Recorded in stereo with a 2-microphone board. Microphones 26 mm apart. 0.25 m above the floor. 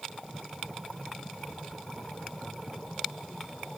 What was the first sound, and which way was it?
Only background noise.